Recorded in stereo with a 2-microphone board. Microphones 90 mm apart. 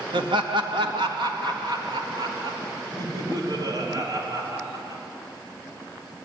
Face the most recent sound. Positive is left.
turn(degrees=-45)  # may be behind; listen again after turning